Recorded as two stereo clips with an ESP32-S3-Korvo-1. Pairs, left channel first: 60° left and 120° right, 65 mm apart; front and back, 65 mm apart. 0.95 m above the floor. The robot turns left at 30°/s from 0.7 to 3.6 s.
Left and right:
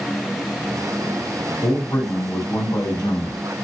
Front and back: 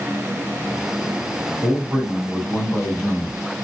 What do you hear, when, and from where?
1.6 s a man speaking: 120° left, 3 m; by 3.4 s 70° left, 3 m